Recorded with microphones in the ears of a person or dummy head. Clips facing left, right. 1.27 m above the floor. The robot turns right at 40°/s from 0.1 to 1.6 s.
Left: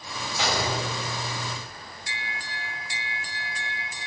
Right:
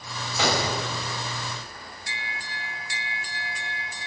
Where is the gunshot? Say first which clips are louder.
Right 2 dB; 75° right (ahead or behind), 8.5 m; by 0.8 s 85° right, 8.5 m.